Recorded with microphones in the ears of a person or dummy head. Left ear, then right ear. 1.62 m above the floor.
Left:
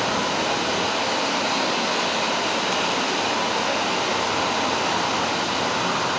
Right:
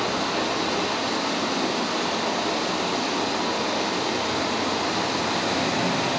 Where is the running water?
40° left (ahead or behind), 3 m.